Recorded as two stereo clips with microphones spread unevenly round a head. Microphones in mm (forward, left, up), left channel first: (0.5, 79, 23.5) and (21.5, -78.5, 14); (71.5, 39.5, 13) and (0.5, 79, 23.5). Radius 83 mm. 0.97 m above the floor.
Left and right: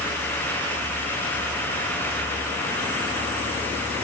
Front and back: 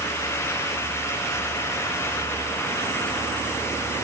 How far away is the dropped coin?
No dropped coin in this recording.